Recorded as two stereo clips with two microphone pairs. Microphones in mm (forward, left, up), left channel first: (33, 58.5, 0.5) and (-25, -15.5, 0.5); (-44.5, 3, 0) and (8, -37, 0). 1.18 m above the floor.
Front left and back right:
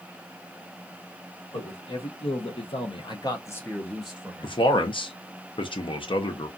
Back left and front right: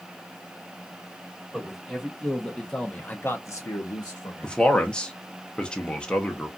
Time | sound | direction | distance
1.5 | a man speaking | 45° left | 1.4 m
4.4 | a man speaking | 70° left | 0.7 m